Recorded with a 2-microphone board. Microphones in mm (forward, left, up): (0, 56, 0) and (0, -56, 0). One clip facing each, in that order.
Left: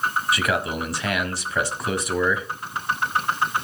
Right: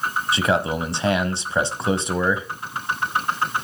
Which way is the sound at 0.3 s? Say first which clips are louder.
Right 3 dB; 25° right (ahead or behind).